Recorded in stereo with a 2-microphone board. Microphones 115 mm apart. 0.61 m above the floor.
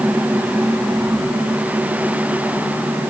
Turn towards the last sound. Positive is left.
No sound to turn to.